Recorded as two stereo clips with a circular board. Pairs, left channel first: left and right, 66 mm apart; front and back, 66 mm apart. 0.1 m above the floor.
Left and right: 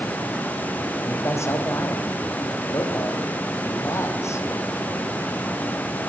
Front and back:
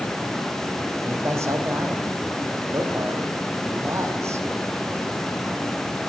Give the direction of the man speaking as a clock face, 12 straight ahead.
8 o'clock.